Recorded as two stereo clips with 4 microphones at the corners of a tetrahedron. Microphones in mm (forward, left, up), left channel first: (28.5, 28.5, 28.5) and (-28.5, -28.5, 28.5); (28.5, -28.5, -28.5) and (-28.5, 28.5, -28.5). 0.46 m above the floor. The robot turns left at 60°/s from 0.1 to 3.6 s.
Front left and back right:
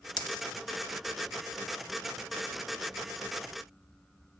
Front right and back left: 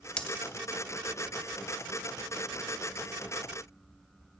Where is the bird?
No bird in this recording.